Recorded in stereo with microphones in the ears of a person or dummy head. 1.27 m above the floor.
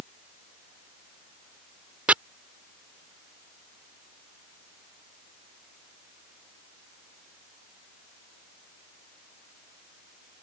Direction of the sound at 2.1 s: 10° right (ahead or behind).